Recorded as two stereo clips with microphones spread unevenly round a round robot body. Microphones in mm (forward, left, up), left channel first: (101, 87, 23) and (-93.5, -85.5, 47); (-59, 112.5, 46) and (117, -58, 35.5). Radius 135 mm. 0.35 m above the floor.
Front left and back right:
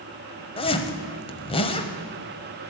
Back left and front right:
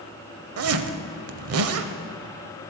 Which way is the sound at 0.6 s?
25° right.